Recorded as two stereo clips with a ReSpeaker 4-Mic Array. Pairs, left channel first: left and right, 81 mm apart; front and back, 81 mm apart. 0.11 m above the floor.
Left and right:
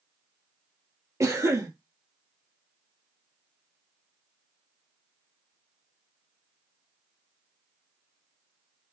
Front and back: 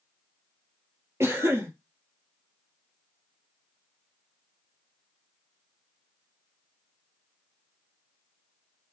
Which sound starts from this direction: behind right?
A cough, at 1.2 s.